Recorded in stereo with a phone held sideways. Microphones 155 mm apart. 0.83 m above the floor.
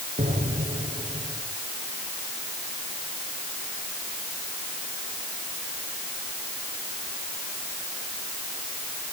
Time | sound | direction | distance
0.2 | an explosion | 45° right (ahead or behind) | 5.5 m